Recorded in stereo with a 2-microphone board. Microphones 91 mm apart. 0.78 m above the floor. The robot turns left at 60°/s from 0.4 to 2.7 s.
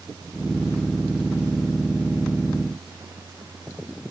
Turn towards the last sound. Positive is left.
No sound to turn to.